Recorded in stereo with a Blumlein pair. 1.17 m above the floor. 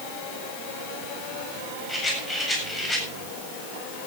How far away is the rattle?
About 8 m.